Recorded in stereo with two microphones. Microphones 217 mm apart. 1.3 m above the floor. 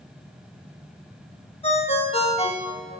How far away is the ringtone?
About 0.8 m.